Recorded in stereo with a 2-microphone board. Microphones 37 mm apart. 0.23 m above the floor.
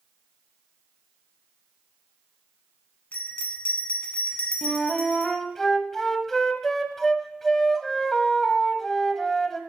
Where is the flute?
10° left (ahead or behind), 0.8 m.